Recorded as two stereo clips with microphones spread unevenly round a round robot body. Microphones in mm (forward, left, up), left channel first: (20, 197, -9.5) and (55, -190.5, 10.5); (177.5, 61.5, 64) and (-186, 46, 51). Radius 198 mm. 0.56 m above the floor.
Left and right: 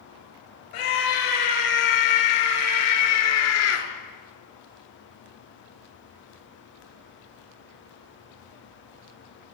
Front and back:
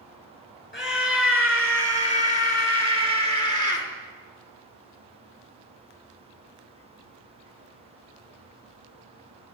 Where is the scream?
60° left, 8.5 m; by 3.9 s 40° left, 7.5 m.